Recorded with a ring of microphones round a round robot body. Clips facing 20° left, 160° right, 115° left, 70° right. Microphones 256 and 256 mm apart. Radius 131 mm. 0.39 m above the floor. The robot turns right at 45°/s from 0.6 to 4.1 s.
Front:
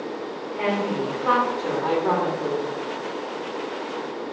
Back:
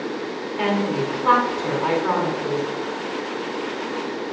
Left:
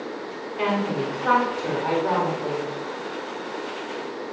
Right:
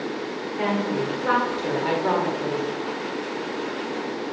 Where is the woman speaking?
170° left, 1.0 m; by 2.7 s 95° right, 1.0 m.